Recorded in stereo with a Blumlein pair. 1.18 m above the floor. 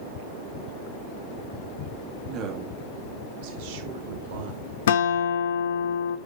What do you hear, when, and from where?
2.2 s a woman speaking: 30° right, 2 m; by 4.7 s 60° right, 3 m
4.9 s a guitar: 60° left, 0.6 m